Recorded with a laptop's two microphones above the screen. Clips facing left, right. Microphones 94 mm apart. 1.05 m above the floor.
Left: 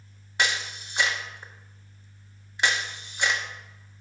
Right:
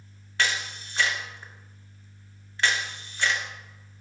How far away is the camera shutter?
About 0.8 m.